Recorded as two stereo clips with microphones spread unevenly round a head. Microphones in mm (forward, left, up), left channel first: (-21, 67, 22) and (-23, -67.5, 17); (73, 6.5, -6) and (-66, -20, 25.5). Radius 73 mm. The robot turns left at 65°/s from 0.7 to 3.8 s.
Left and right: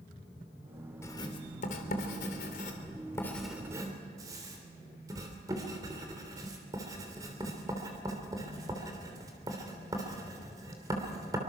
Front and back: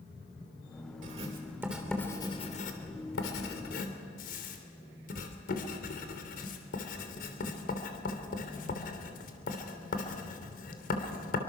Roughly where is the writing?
Behind.